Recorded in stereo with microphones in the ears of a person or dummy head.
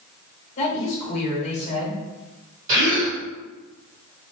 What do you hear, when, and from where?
0.6 s a woman speaking: 35° left (ahead or behind), 1.7 m
2.7 s a gasp: 20° right (ahead or behind), 2.0 m